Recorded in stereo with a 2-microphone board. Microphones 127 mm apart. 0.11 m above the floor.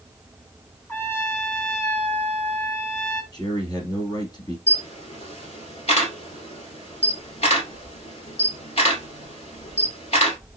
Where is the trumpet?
15° left (ahead or behind), 1.4 m.